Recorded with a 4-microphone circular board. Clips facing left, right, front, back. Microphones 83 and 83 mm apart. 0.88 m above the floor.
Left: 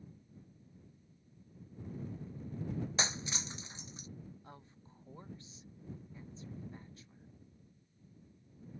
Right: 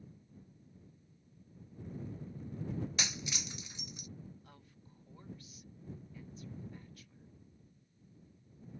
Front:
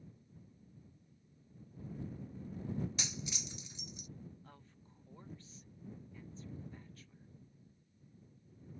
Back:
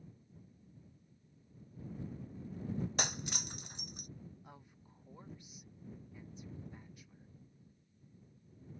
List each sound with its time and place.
3.0 s breaking glass: 145° left
4.4 s a woman speaking: 115° left